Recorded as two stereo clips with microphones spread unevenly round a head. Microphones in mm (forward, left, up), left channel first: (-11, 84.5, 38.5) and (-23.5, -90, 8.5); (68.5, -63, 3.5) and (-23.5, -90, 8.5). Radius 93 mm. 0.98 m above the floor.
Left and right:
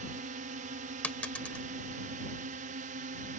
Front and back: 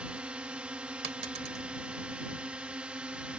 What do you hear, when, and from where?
0.0 s a drone: 90° right
1.0 s a dropped coin: 165° left